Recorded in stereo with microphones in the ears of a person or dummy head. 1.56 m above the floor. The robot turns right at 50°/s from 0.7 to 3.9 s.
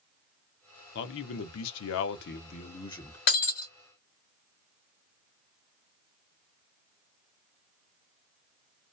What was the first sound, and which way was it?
A man speaking, 60° left.